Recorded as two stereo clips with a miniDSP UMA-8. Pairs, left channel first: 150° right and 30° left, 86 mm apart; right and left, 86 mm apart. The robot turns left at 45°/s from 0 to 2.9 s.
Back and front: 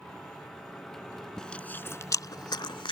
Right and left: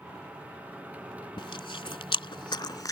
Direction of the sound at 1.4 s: 65° right.